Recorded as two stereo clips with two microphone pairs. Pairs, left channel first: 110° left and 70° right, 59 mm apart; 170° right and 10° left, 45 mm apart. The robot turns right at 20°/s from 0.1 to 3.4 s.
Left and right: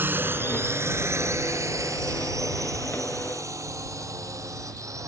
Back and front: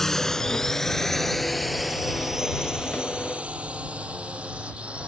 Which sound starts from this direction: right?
A drone, at 0.0 s.